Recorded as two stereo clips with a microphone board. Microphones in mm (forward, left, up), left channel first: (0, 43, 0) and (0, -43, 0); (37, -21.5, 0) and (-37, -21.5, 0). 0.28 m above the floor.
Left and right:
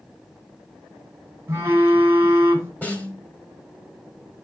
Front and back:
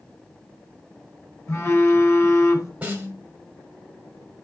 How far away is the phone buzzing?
About 1.7 m.